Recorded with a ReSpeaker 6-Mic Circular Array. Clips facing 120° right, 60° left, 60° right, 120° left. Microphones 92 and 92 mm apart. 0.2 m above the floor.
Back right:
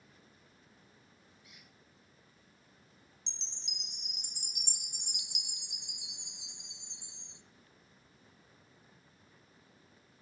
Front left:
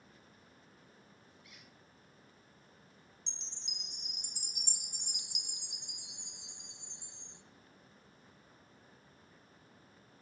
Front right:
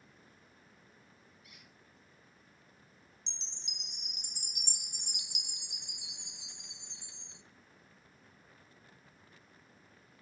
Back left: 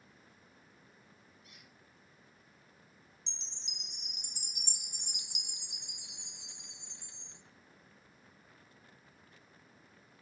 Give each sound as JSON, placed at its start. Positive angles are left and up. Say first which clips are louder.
{"t": 1.4, "sound": "a squeak", "louder": "even, even", "azimuth_deg": 170, "distance_m": 9.0}
{"t": 3.3, "sound": "a chime", "louder": "even, front right 1 dB", "azimuth_deg": -90, "distance_m": 0.6}